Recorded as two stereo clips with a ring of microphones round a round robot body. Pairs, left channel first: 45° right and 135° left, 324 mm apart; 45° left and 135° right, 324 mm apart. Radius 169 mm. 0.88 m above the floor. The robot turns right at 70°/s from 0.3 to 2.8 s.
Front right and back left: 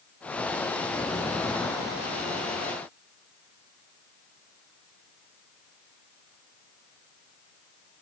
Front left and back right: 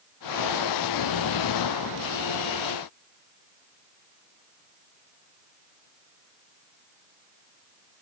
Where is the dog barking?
No dog barking in this recording.